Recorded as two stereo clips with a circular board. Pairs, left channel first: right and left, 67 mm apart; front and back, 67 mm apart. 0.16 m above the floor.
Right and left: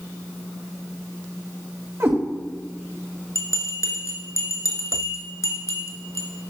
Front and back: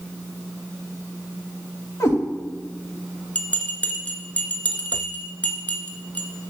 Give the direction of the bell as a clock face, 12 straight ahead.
2 o'clock.